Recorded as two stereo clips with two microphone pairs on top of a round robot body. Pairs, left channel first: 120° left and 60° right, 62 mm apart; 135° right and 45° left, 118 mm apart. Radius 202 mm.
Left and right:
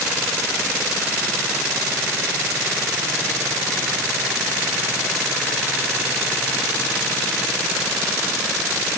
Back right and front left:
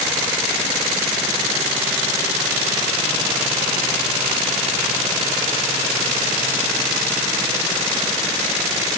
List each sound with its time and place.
Only background noise.